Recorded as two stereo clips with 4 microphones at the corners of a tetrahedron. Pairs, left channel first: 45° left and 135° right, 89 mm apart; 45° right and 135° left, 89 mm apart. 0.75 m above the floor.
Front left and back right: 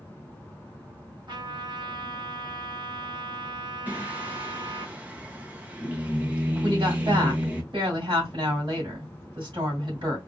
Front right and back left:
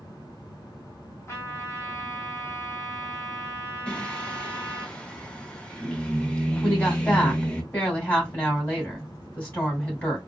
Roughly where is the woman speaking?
Behind right.